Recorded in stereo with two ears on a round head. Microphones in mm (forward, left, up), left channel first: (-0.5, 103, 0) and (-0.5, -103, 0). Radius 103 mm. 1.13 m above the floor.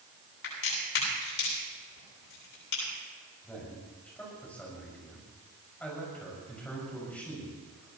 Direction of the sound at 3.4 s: 5° left (ahead or behind).